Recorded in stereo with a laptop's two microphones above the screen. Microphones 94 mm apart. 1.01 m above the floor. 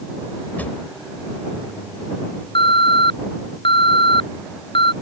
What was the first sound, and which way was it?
A drawer, 20° left (ahead or behind).